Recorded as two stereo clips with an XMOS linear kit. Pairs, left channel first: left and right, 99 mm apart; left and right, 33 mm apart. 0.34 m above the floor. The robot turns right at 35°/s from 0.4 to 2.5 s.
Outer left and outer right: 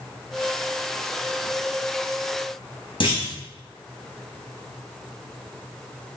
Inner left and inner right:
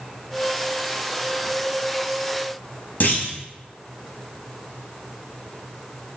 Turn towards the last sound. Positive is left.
turn(degrees=55)  # may be behind; listen again after turning